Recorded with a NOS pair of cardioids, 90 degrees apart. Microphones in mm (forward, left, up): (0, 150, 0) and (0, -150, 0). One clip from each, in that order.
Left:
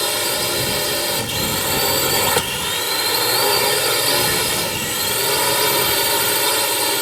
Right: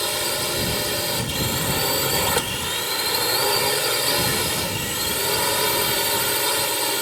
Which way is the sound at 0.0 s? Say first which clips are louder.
Left 4 dB; 30° left.